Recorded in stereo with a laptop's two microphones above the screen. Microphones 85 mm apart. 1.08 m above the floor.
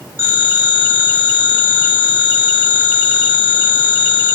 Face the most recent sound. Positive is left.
turn(degrees=-25)  # may be behind; listen again after turning